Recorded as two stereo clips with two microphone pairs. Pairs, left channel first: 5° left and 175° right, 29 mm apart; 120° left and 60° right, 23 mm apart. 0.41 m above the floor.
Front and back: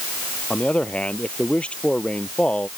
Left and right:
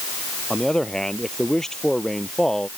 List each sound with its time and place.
0.5 s a man speaking: 55° left